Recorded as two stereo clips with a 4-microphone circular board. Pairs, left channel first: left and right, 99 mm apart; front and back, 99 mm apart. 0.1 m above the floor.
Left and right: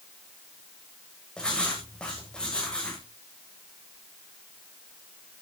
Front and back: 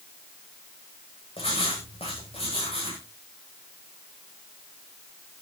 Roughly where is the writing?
Ahead.